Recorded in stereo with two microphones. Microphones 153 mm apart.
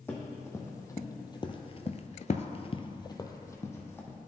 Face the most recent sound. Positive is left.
turn(degrees=15)  # may be behind; listen again after turning